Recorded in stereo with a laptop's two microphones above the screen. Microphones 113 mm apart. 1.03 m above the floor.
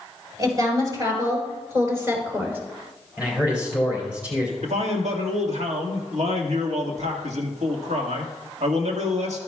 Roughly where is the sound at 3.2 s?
Centre.